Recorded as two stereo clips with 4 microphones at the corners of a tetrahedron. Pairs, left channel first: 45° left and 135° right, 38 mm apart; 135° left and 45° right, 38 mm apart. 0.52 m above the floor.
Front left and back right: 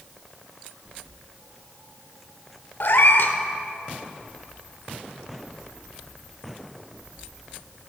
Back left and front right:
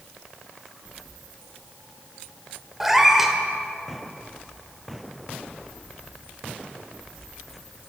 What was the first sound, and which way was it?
A cat meowing, 35° left.